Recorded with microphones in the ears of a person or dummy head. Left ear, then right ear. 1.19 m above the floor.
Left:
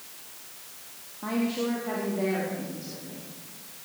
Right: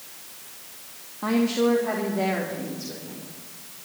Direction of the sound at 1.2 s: 80° right.